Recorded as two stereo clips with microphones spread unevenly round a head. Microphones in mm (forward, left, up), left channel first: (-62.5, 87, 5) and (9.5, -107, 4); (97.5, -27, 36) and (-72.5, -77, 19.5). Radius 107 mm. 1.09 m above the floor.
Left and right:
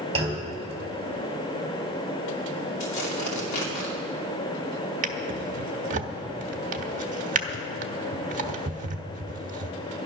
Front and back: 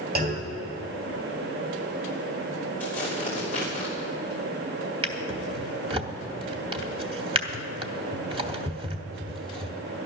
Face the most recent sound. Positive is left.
turn(degrees=-110)